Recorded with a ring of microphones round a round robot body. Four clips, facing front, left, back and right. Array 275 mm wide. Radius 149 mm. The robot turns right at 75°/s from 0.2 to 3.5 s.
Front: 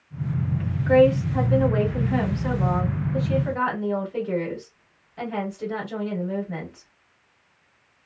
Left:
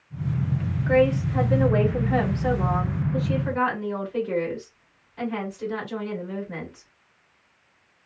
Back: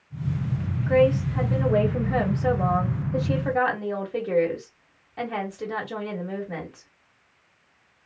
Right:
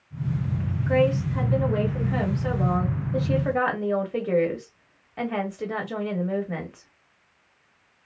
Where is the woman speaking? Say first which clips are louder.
Left 2 dB, front 3 dB; 45° left, 1.7 m; by 6.9 s 120° right, 1.7 m.